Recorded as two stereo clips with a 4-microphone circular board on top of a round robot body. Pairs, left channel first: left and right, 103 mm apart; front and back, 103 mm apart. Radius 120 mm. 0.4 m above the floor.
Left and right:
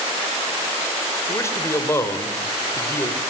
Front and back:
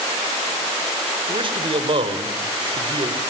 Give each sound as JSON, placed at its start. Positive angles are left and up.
{"t": 1.3, "sound": "a man speaking", "azimuth_deg": 150, "distance_m": 2.5}